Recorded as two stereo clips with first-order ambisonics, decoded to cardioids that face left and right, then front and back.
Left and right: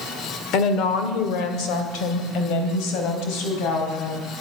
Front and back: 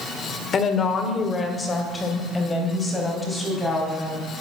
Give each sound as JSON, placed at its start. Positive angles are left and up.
{"t": 0.5, "sound": "a woman speaking", "azimuth_deg": 60, "distance_m": 1.5}